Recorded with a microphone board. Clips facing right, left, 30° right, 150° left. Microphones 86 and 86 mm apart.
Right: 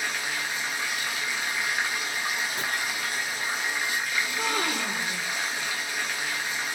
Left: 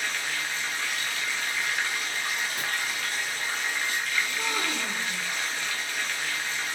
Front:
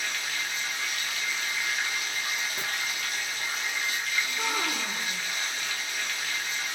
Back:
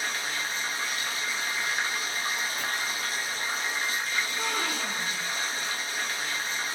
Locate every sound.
0.0 s running water: 165° right, 0.8 m
2.6 s chopping: 30° right, 1.4 m
4.2 s a gasp: 115° right, 1.0 m